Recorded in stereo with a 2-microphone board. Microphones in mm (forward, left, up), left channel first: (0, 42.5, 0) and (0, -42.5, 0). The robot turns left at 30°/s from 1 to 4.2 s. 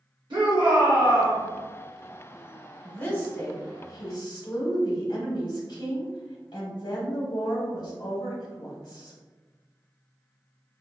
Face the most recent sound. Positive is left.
turn(degrees=125)